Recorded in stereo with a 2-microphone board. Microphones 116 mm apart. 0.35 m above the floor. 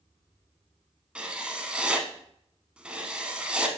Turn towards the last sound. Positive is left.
turn(degrees=-10)  # may be behind; listen again after turning